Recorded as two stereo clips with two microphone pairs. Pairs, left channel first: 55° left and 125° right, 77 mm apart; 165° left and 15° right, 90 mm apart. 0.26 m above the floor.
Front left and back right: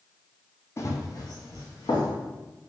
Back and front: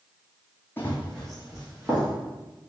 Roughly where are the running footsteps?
Left.